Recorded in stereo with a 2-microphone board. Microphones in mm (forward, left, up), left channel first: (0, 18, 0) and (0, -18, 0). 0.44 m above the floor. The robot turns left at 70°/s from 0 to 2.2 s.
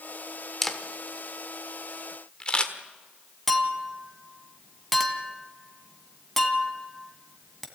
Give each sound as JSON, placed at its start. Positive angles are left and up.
{"t": 0.6, "sound": "a camera shutter", "side_deg": 5, "distance_m": 1.5}
{"t": 3.5, "sound": "a clink", "side_deg": 5, "distance_m": 1.8}